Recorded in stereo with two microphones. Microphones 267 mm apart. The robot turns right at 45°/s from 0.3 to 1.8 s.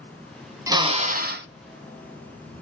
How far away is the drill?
About 0.6 m.